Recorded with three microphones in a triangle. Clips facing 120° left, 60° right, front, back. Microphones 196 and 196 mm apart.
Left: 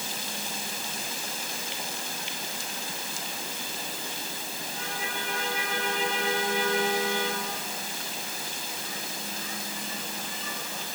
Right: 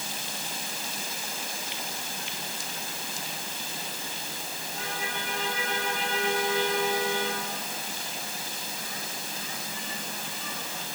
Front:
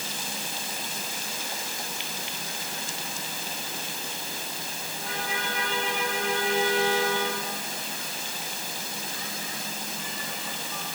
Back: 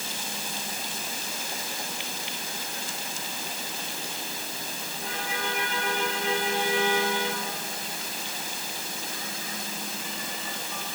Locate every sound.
Only background noise.